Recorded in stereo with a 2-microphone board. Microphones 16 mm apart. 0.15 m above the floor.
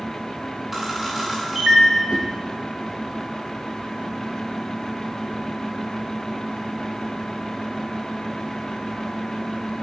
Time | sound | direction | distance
0.7 | a camera shutter | 10° right (ahead or behind) | 5.5 m
2.1 | a whoosh | 80° right | 3 m